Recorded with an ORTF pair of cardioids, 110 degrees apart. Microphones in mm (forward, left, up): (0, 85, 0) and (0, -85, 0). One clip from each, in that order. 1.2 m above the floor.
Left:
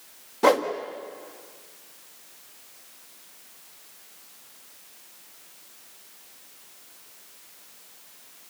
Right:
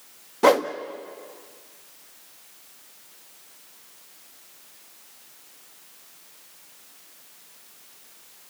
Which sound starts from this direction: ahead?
A whoosh, at 0.4 s.